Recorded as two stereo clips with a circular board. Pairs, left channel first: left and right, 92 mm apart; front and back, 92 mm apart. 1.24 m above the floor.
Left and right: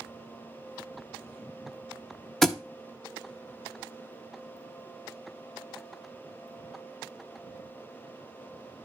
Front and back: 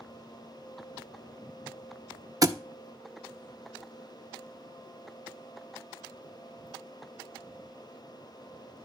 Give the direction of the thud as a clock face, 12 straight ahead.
6 o'clock.